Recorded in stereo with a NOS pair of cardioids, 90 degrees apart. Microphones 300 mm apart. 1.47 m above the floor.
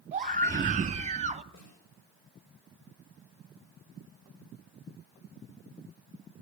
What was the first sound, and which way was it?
A scream, 25° right.